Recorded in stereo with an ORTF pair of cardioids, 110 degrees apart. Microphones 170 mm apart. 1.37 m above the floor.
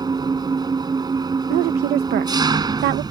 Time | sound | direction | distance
0.0 | an engine running | 25° right | ?
1.5 | a woman speaking | 65° right | ?